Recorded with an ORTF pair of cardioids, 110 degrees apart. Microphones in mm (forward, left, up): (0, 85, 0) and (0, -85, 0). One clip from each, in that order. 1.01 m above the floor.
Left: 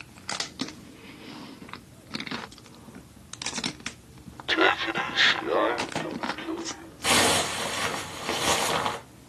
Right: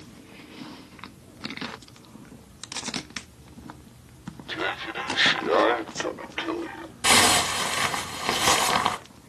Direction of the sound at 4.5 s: 45° left.